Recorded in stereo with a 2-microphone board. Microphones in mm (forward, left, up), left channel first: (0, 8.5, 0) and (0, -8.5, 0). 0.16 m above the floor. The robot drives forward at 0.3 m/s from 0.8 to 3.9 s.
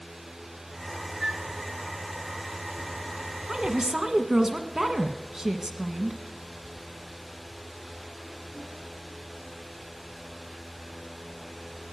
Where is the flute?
30° right (ahead or behind), 1.1 m; by 1.4 s 35° right (ahead or behind), 1.0 m.